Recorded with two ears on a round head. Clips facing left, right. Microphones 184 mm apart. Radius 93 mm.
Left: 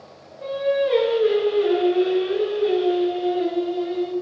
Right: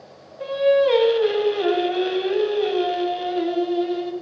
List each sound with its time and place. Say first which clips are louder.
0.4 s singing: right 4 dB; 80° right, 0.7 m